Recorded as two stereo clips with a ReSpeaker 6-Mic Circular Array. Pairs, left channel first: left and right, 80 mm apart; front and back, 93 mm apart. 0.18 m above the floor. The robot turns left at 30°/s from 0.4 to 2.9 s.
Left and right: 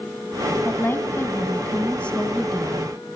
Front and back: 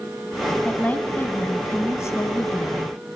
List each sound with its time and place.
0.7 s a woman speaking: 65° left, 1.3 m; by 3.2 s straight ahead, 1.3 m